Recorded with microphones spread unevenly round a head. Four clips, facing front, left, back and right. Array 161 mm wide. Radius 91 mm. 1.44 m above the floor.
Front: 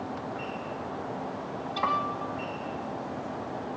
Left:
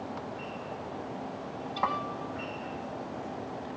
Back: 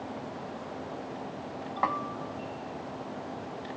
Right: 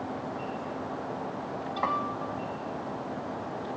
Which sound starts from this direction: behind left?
A snare drum, at 1.8 s.